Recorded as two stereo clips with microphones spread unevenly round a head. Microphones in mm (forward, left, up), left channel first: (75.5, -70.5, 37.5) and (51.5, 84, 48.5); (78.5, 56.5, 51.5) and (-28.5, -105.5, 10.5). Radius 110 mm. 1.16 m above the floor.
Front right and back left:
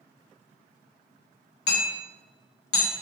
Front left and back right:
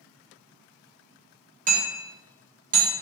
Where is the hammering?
70° right, 1.1 m.